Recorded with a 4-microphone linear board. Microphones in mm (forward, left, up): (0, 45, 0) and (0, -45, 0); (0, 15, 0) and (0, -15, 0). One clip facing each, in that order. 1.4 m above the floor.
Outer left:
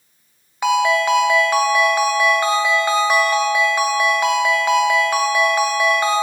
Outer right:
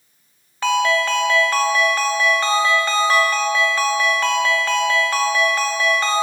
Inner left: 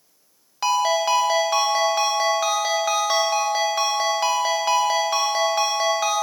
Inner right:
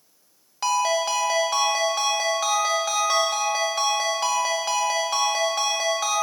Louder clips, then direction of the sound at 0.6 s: Outer left 2 dB, inner left 2 dB; 15° left (ahead or behind).